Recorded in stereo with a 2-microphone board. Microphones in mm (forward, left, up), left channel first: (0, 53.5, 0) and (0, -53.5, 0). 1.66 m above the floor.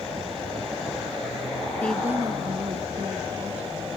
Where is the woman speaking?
15° left (ahead or behind), 0.6 m; by 3.9 s 75° right (ahead or behind), 2.5 m.